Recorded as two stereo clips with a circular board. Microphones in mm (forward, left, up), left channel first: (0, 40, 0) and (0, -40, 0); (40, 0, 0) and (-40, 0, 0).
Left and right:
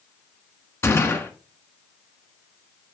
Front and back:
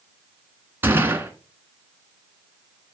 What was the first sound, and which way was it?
A gunshot, 130° left.